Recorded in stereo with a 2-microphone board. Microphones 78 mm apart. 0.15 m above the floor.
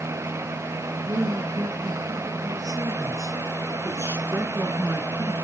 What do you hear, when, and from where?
1.0 s a man speaking: 65° right (ahead or behind), 3.5 m; by 5.3 s 10° right (ahead or behind), 2 m